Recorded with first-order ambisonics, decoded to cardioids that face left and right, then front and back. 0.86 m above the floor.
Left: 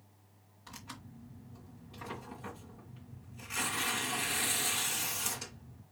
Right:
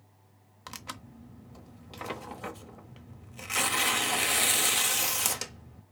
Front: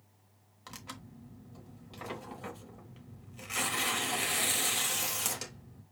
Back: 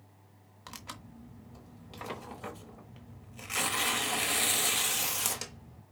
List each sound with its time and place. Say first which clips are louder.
0.7 s tearing paper: right 7 dB, back 1 dB; 100° right, 0.8 m